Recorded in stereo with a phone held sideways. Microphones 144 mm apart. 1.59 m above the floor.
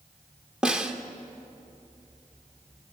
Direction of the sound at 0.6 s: 5° right (ahead or behind).